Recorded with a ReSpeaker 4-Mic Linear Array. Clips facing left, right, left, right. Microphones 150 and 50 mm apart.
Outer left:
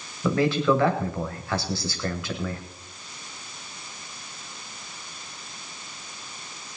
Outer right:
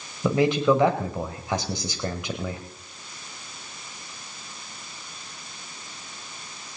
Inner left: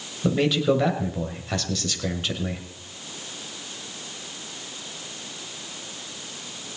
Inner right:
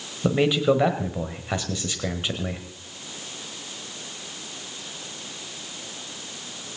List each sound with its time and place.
0.2 s a man speaking: 20° right (ahead or behind), 1.4 m